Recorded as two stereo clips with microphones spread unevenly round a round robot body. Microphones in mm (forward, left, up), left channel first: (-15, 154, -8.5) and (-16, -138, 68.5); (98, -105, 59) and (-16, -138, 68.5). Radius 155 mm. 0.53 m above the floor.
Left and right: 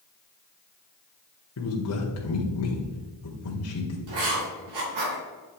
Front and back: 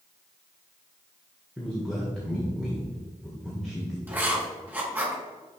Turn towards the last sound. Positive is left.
turn(degrees=-90)